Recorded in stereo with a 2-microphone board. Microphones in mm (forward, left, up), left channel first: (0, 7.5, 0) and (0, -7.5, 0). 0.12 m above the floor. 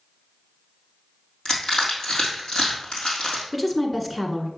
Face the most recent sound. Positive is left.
turn(degrees=5)  # may be behind; listen again after turning